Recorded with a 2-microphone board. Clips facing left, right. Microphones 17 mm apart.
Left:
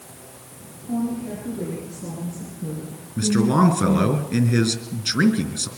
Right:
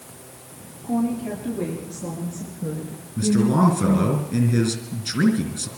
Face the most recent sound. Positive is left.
turn(degrees=25)  # may be behind; listen again after turning